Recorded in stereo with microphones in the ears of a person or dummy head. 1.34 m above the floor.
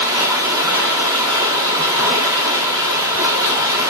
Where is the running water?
20° right (ahead or behind), 1.2 m.